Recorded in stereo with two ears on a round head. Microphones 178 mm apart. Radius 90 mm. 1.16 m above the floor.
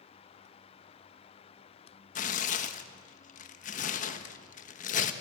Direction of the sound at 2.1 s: 40° left (ahead or behind).